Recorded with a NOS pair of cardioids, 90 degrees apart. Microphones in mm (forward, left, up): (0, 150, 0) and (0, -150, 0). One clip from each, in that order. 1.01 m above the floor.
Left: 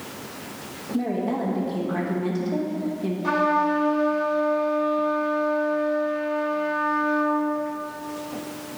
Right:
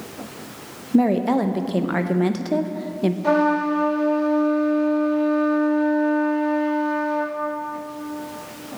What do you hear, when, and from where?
0.9 s a woman speaking: 65° right, 0.6 m
3.2 s a trumpet: 30° right, 1.7 m